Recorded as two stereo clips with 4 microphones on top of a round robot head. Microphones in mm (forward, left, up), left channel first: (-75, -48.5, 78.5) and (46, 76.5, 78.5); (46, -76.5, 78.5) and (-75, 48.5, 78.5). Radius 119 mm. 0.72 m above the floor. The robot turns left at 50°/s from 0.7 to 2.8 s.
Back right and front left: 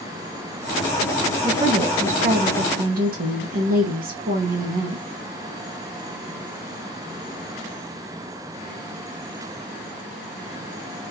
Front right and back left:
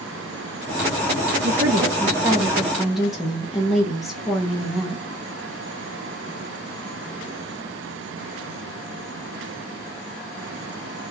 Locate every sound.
1.4 s a woman speaking: 115° left, 1.0 m; by 5.0 s 45° left, 1.0 m